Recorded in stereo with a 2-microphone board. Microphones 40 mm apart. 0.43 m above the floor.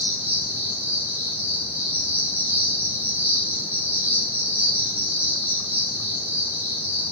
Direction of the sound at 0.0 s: 85° right.